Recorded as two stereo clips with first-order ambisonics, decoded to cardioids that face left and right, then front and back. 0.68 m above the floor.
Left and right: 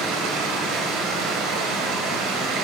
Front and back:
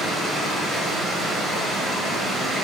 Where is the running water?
85° right, 1.4 m.